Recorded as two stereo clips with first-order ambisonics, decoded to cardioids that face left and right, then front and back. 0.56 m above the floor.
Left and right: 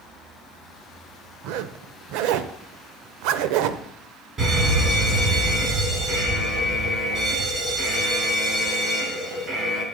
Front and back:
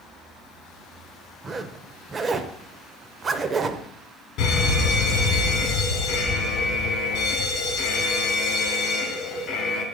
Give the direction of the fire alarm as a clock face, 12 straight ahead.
1 o'clock.